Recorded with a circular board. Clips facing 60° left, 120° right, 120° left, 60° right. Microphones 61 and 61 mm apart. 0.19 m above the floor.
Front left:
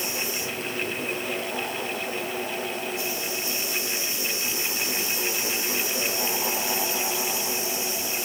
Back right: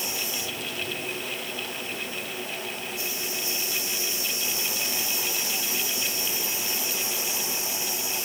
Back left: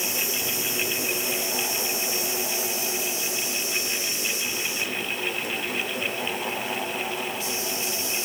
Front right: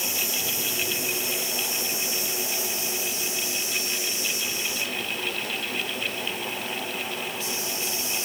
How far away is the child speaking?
I don't hear a child speaking.